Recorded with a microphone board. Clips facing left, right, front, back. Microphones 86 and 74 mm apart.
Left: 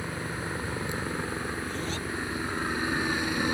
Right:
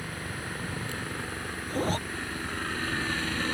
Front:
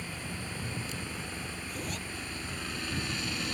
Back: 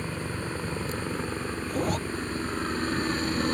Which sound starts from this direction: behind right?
A zipper, at 1.7 s.